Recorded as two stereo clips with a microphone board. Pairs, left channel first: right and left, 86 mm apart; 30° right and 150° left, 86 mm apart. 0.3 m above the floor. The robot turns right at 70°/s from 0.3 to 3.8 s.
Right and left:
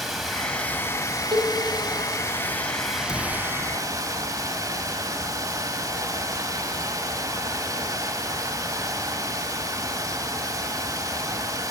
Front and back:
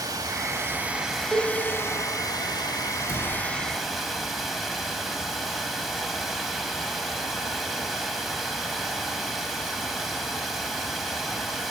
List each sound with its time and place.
0.0 s running water: straight behind, 1.3 m; by 11.7 s 65° left, 1.3 m
1.3 s a cowbell: 70° left, 4 m; by 1.5 s 85° left, 4 m
3.1 s a cupboard door: 140° right, 4 m; by 3.3 s 125° right, 4 m